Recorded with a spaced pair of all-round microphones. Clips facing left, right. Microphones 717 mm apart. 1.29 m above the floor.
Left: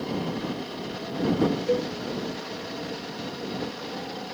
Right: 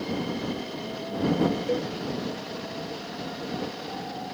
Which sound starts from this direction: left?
A cowbell, at 1.7 s.